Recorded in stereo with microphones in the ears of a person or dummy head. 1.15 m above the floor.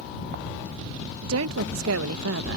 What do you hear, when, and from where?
1.2 s a woman speaking: 75° right (ahead or behind)